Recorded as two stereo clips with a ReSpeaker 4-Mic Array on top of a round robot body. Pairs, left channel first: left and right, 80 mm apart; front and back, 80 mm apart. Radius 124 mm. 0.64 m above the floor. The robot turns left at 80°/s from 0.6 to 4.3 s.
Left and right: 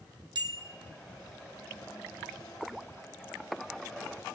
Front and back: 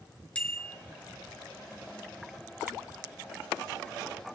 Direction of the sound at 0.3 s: 75° right.